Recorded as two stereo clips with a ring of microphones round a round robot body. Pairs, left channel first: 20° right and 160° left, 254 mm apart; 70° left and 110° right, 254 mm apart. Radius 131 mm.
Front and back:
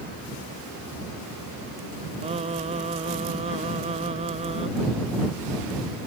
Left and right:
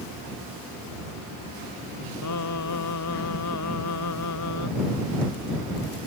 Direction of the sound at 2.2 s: 90° left.